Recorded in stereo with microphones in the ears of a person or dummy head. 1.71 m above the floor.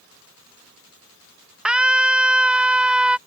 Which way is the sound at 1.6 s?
5° right (ahead or behind).